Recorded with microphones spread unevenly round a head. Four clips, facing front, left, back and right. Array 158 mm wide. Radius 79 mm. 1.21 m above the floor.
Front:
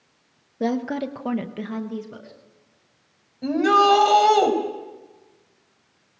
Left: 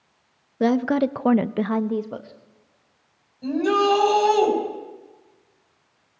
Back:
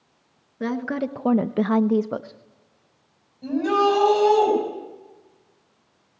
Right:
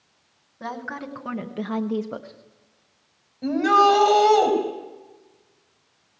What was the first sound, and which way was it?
A woman speaking, 80° left.